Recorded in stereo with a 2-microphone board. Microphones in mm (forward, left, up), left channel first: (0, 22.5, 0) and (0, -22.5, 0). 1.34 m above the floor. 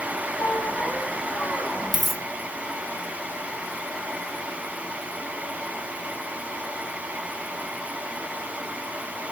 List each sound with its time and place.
0.4 s a squeak: 50° left (ahead or behind), 3.5 m
1.9 s a dropped coin: 5° left (ahead or behind), 1.7 m